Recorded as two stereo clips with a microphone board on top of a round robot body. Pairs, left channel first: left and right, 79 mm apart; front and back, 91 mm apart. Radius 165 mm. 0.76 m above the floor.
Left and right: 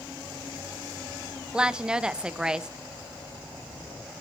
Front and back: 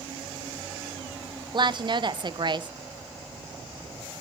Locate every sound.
1.5 s a woman speaking: 170° right, 0.9 m